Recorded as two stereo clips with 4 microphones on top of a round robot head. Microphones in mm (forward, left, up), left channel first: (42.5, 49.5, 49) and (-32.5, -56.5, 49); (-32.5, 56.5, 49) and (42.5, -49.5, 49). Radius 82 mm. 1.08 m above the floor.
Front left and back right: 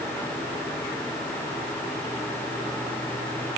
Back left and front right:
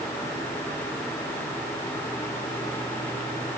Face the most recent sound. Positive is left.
No sound to turn to.